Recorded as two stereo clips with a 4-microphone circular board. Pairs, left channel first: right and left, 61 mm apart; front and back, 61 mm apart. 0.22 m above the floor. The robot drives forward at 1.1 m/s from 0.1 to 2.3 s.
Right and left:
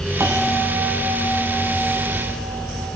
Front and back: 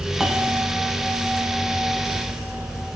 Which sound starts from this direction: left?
A bell, at 0.2 s.